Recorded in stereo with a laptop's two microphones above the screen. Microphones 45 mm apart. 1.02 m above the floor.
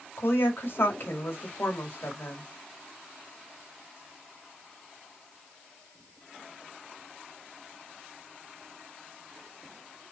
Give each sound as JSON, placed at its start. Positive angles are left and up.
{"t": 0.2, "sound": "a woman speaking", "side_deg": 60, "distance_m": 1.5}